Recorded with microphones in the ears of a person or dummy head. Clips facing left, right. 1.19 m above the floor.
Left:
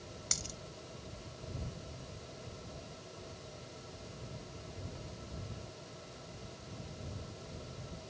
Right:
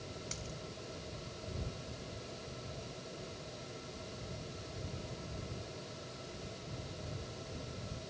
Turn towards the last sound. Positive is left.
turn(degrees=75)  # may be behind; listen again after turning